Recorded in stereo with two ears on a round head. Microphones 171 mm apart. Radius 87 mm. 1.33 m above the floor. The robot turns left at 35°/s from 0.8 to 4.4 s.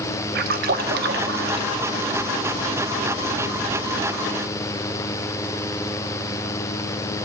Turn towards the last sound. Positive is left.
turn(degrees=170)